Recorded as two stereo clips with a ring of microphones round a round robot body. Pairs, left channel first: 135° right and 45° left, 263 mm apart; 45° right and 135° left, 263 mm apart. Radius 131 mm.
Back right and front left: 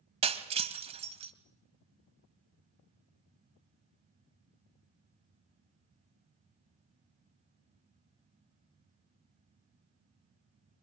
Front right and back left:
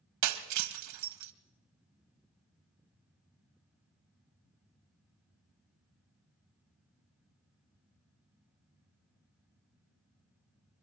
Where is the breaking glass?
115° left, 1.8 m.